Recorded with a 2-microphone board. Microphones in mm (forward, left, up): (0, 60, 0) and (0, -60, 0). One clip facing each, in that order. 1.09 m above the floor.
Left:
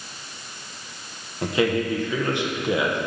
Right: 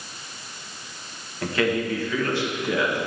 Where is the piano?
I don't hear a piano.